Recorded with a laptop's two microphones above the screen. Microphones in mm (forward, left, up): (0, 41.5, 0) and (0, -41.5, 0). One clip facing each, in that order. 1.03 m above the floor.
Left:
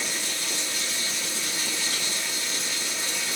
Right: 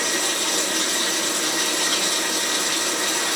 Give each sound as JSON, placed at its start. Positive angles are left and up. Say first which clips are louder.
{"t": 0.0, "sound": "running water", "louder": "right 8 dB", "side_deg": -60, "distance_m": 1.0}